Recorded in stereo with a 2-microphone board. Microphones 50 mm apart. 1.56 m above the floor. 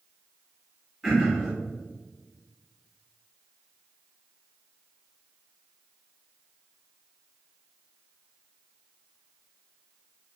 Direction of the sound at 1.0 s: 5° right (ahead or behind).